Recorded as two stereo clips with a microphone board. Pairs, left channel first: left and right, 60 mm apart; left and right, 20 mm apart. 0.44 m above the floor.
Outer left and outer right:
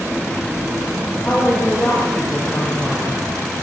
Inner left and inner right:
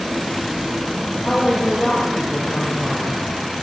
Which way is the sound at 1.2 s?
15° left (ahead or behind).